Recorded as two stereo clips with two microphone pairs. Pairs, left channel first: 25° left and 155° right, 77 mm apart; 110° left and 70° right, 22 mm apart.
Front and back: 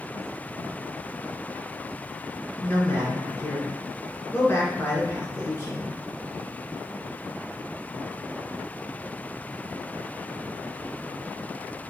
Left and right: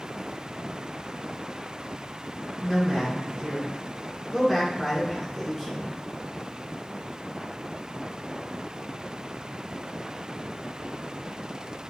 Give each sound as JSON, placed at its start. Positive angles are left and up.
{"t": 2.6, "sound": "a man speaking", "azimuth_deg": 45, "distance_m": 1.7}